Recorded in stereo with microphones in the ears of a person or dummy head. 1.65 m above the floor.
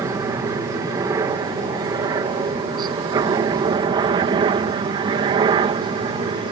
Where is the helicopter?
15° right (ahead or behind); by 6.5 s 25° right (ahead or behind).